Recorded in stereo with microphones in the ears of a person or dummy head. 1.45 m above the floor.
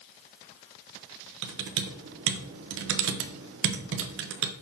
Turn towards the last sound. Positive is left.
turn(degrees=-75)  # may be behind; listen again after turning